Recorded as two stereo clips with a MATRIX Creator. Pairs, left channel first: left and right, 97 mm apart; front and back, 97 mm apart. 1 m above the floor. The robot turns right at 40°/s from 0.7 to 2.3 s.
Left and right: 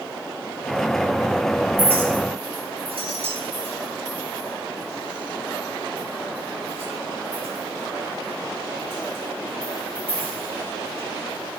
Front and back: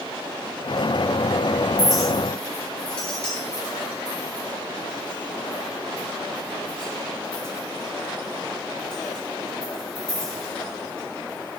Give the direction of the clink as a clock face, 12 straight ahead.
3 o'clock.